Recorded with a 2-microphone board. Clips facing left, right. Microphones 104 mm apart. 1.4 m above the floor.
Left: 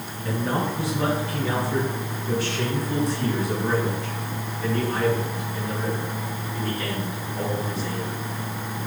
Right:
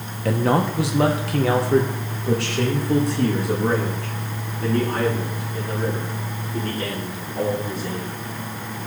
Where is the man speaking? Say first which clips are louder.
Right 6 dB; 75° right (ahead or behind), 1.1 m; by 8.2 s 50° right (ahead or behind), 4.5 m.